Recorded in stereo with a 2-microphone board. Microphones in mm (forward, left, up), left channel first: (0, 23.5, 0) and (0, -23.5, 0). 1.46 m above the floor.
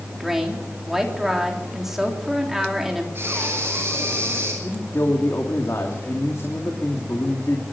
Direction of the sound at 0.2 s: 10° right (ahead or behind).